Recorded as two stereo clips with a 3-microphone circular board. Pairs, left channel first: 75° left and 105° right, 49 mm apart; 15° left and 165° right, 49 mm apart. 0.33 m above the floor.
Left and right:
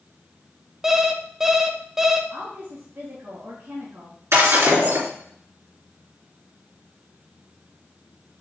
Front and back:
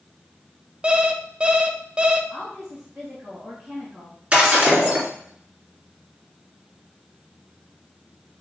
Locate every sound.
0.8 s an alarm clock: 165° right, 0.6 m
2.3 s a woman speaking: 85° right, 2.5 m
4.3 s breaking glass: 100° right, 2.5 m